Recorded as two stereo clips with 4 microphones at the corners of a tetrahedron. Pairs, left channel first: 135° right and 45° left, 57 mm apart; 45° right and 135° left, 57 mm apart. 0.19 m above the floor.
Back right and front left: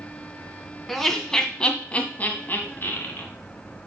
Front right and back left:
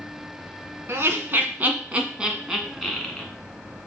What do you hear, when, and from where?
0.9 s laughter: 140° left, 1.5 m; by 3.3 s 125° right, 1.5 m